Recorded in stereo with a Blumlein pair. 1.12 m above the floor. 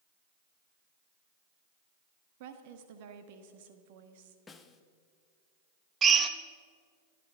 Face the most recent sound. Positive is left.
turn(degrees=-25)